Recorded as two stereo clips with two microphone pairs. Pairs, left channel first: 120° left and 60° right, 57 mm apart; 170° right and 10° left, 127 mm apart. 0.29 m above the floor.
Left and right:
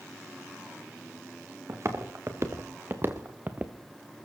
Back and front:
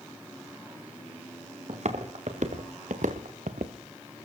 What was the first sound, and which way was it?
Footsteps, 20° right.